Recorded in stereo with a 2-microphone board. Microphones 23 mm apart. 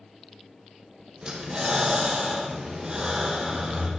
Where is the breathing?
35° right (ahead or behind), 2 m.